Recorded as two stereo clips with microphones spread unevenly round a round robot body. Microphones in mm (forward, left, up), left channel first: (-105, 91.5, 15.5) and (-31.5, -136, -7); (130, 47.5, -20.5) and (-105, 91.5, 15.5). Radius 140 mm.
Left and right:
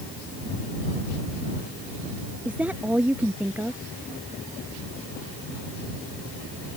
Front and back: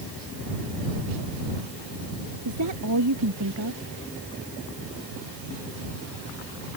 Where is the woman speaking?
155° right.